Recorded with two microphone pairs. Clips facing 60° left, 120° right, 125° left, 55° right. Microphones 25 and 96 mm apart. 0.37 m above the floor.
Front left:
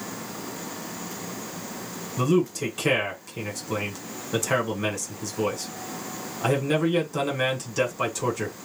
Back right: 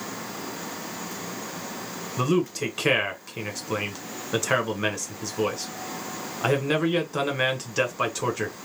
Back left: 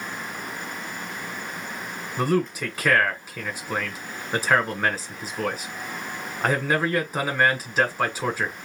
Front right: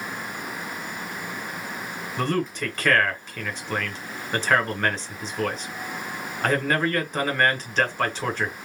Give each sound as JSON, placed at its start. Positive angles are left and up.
{"t": 2.2, "sound": "a man speaking", "azimuth_deg": -160, "distance_m": 1.4}